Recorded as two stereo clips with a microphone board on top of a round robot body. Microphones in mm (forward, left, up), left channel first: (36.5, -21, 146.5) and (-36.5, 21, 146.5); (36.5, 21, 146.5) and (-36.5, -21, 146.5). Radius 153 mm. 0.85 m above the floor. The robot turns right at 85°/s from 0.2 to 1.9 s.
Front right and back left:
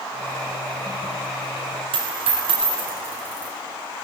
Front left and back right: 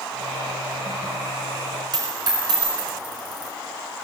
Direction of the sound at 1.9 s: 170° left.